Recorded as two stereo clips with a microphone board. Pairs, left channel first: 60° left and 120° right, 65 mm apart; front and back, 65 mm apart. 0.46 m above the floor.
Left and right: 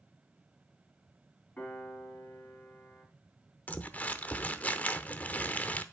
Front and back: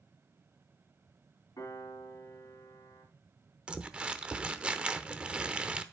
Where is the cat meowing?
I don't hear a cat meowing.